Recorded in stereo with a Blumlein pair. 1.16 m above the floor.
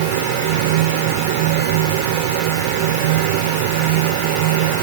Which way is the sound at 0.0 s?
50° right.